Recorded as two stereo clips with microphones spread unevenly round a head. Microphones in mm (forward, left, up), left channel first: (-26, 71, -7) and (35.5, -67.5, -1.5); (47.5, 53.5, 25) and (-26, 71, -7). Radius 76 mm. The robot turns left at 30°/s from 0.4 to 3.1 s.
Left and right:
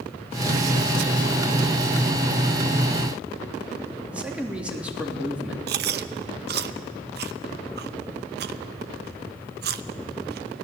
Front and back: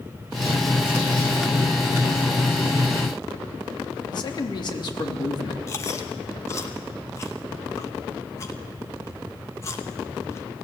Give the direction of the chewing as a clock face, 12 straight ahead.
2 o'clock.